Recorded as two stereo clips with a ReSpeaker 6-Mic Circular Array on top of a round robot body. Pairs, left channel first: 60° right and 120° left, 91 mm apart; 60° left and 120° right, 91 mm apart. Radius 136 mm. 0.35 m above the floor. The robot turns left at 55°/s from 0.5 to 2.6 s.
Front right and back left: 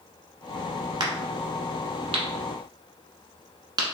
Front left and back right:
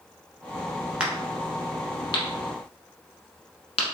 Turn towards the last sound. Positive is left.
turn(degrees=75)